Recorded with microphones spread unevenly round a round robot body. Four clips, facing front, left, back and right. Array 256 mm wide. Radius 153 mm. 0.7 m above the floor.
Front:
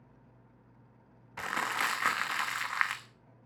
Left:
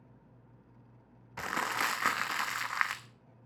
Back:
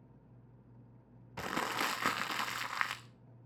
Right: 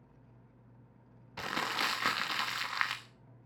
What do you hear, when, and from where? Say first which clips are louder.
1.4 s crumpling: left 2 dB, front 3 dB; 165° right, 1.1 m